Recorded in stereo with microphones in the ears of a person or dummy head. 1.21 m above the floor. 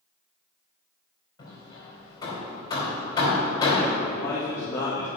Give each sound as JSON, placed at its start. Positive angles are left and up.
{"t": 1.4, "sound": "hammering", "side_deg": 25, "distance_m": 3.5}
{"t": 4.0, "sound": "a man speaking", "side_deg": 15, "distance_m": 2.0}